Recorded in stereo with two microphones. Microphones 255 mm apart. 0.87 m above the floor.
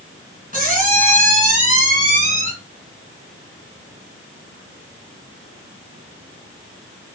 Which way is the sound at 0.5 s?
35° right (ahead or behind).